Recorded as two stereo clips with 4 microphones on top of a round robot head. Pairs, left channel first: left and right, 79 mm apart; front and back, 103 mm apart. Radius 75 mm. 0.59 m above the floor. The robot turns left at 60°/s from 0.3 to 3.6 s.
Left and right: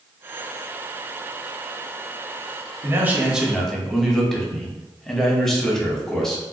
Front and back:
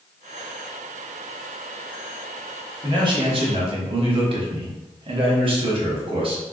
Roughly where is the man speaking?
Behind right.